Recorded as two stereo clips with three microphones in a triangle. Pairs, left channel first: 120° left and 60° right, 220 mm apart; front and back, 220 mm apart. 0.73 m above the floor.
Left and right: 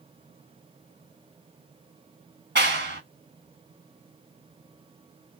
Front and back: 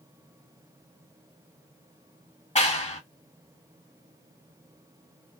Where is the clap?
50° right, 0.9 m.